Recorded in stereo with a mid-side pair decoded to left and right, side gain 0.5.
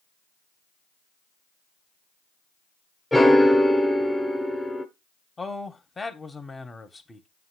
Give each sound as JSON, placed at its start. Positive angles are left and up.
{"t": 3.1, "sound": "a piano", "azimuth_deg": 5, "distance_m": 1.2}
{"t": 5.4, "sound": "a man speaking", "azimuth_deg": 20, "distance_m": 1.2}